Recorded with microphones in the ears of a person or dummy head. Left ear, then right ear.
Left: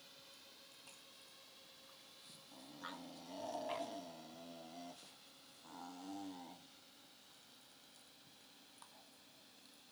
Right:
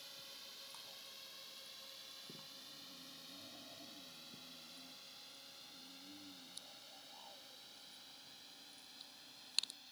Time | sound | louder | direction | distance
0.0 | a drone | right 7 dB | 20° right (ahead or behind) | ?